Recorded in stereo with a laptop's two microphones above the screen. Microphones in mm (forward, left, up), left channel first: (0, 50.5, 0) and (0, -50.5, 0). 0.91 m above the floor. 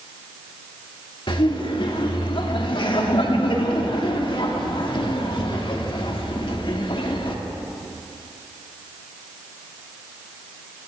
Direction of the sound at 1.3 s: 55° left (ahead or behind).